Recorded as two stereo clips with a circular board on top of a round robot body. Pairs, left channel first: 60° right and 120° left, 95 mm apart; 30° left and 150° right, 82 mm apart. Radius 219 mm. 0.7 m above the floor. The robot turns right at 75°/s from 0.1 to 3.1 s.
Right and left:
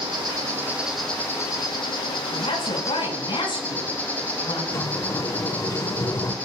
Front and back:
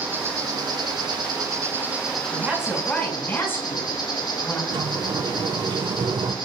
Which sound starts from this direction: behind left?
An insect, at 0.0 s.